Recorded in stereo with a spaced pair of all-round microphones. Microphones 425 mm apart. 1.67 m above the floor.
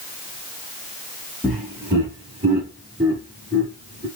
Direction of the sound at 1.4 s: Centre (ahead or behind).